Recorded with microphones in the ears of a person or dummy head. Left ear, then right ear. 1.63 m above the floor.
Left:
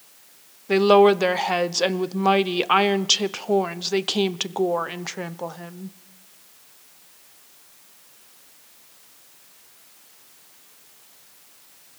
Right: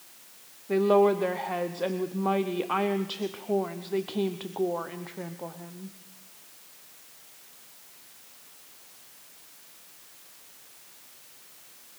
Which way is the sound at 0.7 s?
75° left (ahead or behind).